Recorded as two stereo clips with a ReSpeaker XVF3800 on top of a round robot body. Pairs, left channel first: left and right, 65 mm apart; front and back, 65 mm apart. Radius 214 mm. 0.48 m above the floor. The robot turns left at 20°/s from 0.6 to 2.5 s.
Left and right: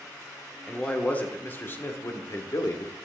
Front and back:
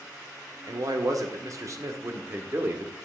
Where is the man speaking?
165° left, 1.9 m; by 3.0 s 130° left, 1.9 m.